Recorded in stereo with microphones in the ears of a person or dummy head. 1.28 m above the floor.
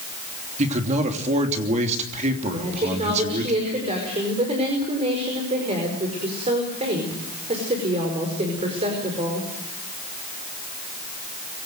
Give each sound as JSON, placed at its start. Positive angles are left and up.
{"t": 0.6, "sound": "a man speaking", "side_deg": -35, "distance_m": 3.0}
{"t": 2.5, "sound": "a woman speaking", "side_deg": -30, "distance_m": 5.0}